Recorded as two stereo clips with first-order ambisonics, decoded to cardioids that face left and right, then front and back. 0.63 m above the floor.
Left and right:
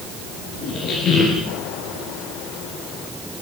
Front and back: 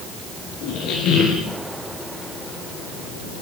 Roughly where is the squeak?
Ahead left.